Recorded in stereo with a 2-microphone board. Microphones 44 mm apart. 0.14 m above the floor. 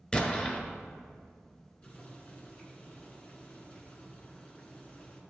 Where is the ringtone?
I don't hear a ringtone.